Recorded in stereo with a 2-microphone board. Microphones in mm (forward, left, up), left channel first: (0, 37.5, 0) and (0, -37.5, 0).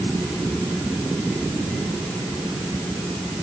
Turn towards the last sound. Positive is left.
No sound to turn to.